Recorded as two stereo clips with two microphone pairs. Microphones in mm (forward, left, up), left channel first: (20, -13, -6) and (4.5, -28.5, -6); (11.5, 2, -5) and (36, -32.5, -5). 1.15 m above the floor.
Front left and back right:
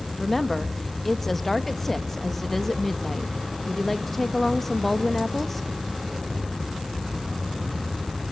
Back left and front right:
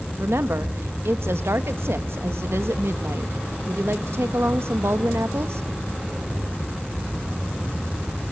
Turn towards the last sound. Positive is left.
turn(degrees=-35)